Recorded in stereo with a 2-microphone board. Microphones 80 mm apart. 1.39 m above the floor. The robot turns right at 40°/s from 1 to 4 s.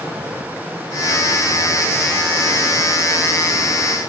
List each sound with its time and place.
Only background noise.